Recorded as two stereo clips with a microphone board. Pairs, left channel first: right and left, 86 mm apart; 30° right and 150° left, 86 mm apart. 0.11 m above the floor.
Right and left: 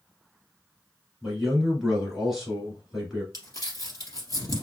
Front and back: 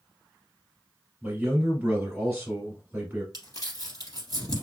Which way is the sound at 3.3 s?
55° right.